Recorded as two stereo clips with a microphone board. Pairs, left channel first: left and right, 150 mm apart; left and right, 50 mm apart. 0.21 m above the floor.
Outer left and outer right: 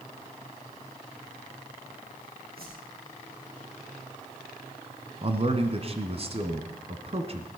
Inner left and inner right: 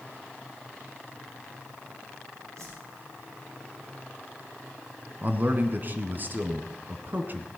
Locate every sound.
2.6 s a whoosh: 80° right, 5 m
5.2 s a man speaking: 40° right (ahead or behind), 1.6 m